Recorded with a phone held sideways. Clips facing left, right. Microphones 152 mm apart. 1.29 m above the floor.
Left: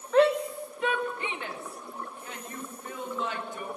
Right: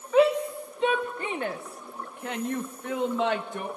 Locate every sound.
0.1 s a shout: 5° right (ahead or behind), 1.3 m; by 3.7 s 75° right (ahead or behind), 2 m